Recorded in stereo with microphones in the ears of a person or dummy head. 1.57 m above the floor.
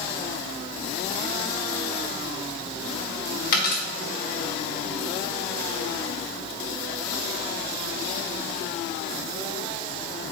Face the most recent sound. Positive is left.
turn(degrees=60)  # may be behind; listen again after turning